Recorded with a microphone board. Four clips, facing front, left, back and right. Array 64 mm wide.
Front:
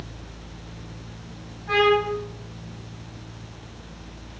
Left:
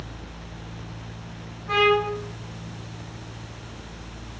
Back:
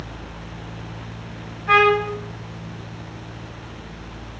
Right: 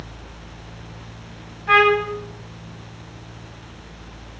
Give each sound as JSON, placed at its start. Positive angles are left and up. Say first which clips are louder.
{"t": 1.7, "sound": "a trumpet", "louder": "right 5 dB, back 4 dB", "azimuth_deg": -115, "distance_m": 7.0}